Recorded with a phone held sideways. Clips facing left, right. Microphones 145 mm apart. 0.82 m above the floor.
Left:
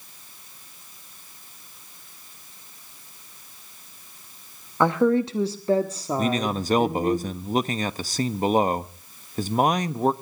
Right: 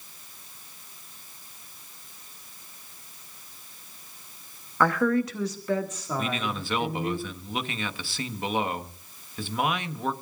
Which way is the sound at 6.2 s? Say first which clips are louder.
Left 7 dB; 40° left (ahead or behind).